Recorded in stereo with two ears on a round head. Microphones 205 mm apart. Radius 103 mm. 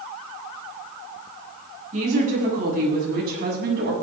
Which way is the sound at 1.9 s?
35° right (ahead or behind).